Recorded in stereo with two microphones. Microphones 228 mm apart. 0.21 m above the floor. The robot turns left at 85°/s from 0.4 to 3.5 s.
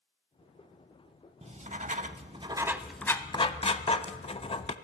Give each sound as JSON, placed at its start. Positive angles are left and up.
{"t": 1.4, "sound": "writing", "azimuth_deg": -55, "distance_m": 0.5}